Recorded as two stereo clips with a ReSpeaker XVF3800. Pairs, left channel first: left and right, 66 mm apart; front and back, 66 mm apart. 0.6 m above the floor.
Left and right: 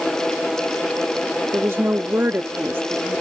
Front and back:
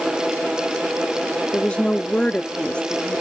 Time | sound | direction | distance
1.5 | a woman speaking | 65° right | ?